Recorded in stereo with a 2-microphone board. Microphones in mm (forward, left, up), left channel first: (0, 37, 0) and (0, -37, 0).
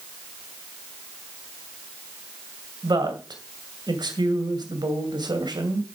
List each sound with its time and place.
2.8 s a woman speaking: 70° right (ahead or behind), 2 m